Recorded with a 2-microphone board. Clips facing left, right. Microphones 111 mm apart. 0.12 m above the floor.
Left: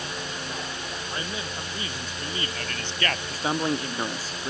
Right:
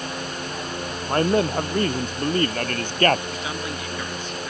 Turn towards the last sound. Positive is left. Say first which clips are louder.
# left 4 dB
turn(degrees=35)  # may be behind; listen again after turning